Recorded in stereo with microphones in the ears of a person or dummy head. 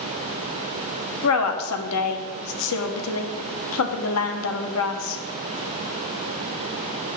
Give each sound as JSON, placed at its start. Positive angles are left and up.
{"t": 1.2, "sound": "a woman speaking", "side_deg": 80, "distance_m": 1.1}